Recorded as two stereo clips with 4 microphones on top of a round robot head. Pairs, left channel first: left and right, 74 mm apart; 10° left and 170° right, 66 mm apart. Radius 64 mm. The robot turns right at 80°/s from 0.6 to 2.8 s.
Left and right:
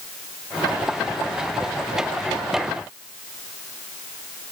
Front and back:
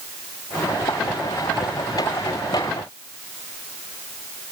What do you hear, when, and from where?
Only background noise.